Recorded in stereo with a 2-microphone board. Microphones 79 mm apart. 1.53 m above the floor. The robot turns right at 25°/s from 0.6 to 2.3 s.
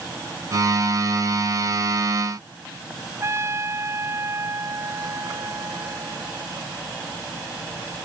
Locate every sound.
3.2 s a trumpet: 35° right (ahead or behind)